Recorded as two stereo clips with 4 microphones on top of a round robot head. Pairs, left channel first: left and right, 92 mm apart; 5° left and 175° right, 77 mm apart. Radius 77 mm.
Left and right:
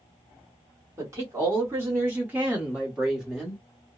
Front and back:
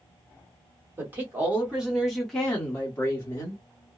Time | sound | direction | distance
1.0 | a woman speaking | 130° right | 1.4 m